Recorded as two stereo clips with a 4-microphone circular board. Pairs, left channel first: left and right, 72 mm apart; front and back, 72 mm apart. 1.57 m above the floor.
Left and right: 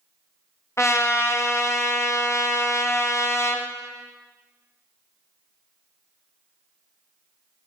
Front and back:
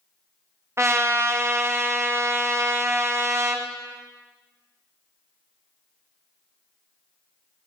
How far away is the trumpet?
About 0.5 m.